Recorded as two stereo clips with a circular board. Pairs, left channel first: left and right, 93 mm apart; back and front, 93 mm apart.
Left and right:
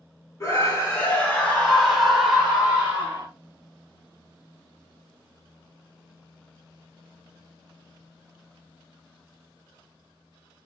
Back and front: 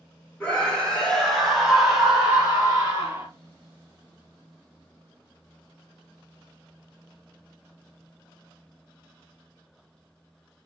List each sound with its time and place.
0.4 s a scream: 115° left, 1.4 m; by 3.3 s 45° right, 1.3 m